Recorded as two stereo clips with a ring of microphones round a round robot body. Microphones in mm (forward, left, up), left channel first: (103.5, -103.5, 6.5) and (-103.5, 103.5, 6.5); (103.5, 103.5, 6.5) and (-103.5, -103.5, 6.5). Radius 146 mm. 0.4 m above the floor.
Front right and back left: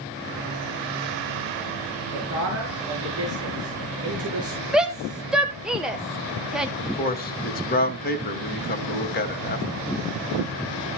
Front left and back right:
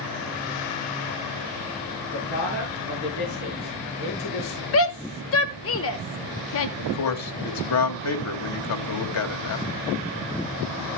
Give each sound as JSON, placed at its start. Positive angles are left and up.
{"t": 2.1, "sound": "a man speaking", "azimuth_deg": 90, "distance_m": 5.0}
{"t": 4.7, "sound": "a shout", "azimuth_deg": 50, "distance_m": 1.2}
{"t": 6.8, "sound": "a man speaking", "azimuth_deg": 15, "distance_m": 2.0}